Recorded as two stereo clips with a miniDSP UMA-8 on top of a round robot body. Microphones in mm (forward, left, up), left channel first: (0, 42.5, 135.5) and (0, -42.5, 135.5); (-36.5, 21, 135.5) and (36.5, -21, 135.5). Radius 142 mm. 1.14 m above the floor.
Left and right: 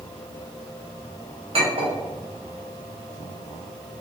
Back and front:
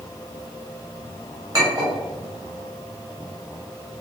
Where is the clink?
80° right, 2.0 m.